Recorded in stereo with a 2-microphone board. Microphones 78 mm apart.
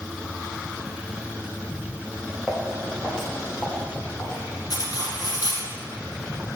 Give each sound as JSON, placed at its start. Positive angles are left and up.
{"t": 2.5, "sound": "footsteps", "side_deg": 5, "distance_m": 2.0}
{"t": 4.7, "sound": "cutlery clinking", "side_deg": 65, "distance_m": 1.7}